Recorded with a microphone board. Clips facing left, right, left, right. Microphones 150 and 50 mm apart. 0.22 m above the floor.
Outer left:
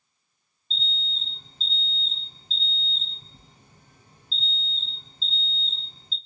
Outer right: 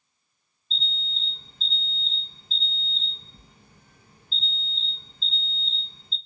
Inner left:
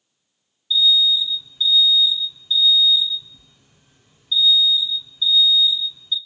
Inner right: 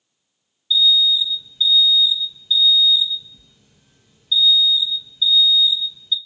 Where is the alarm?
25° left (ahead or behind), 1.7 m.